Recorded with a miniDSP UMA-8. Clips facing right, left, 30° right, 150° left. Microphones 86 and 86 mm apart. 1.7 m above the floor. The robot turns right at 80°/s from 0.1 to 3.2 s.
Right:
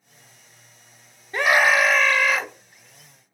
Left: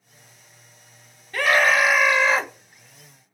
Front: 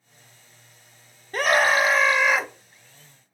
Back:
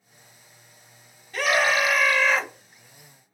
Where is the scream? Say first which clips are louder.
Right 1 dB, front 2 dB; 35° right, 0.5 m; by 2.5 s 60° left, 0.5 m.